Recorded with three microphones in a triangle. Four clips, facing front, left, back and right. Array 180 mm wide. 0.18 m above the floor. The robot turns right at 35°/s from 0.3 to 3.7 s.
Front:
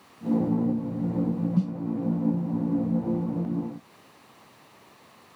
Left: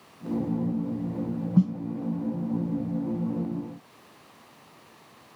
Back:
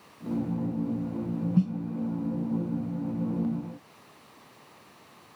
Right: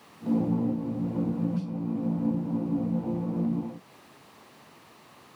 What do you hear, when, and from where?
1.6 s a snare drum: 85° left, 0.7 m; by 1.7 s 90° left, 0.7 m